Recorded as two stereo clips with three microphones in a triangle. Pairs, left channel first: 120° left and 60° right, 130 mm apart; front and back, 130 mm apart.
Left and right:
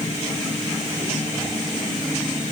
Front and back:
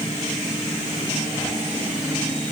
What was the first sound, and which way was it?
Only background noise.